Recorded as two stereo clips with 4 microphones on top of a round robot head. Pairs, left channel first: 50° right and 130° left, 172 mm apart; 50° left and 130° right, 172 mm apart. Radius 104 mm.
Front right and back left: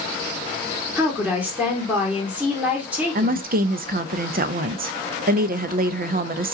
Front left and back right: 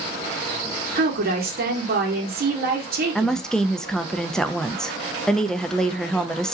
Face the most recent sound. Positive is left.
turn(degrees=135)